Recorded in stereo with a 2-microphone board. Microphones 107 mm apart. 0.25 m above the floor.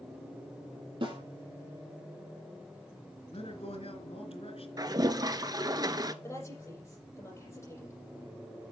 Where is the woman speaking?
30° left (ahead or behind), 7 m.